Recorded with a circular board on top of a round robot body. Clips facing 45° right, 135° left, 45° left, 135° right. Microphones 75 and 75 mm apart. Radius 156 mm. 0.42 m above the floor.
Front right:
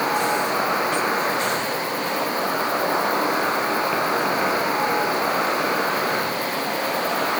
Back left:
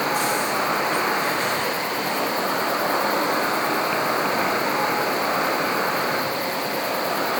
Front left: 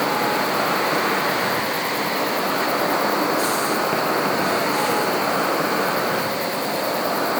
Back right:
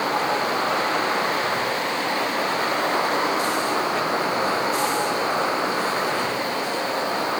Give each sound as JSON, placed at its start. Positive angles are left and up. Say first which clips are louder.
{"t": 0.0, "sound": "an insect", "louder": "front right 1 dB, front left 2 dB", "azimuth_deg": 40, "distance_m": 5.0}